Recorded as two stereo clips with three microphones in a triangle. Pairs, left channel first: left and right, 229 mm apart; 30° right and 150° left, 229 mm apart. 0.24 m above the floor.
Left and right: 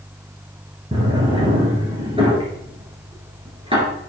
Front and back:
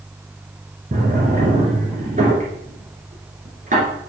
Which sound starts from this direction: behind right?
A drawer, at 0.9 s.